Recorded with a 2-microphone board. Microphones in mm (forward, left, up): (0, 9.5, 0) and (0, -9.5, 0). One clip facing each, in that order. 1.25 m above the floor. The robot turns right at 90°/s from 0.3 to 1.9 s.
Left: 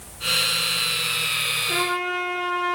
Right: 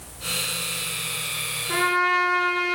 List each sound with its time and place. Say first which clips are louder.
1.7 s a trumpet: right 3 dB; 25° right (ahead or behind), 3.5 m; by 2.8 s 40° right (ahead or behind), 3.5 m